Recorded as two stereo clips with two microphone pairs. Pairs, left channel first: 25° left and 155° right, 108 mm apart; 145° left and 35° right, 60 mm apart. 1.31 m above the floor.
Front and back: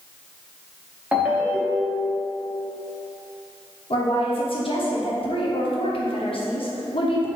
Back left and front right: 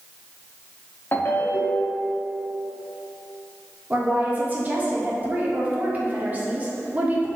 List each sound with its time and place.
1.1 s a ringtone: 130° left, 0.8 m
3.9 s a woman speaking: 20° left, 0.8 m